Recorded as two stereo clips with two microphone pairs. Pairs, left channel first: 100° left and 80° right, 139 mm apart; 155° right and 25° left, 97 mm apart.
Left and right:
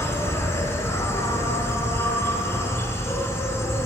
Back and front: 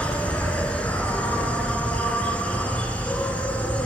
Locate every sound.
0.0 s an insect: 150° left, 0.8 m